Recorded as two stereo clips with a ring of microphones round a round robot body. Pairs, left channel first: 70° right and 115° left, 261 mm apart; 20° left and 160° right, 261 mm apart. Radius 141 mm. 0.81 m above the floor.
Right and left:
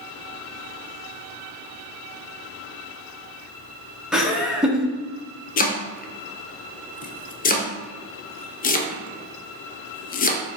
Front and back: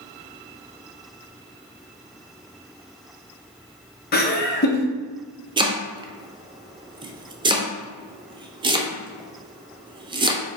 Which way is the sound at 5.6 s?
100° right.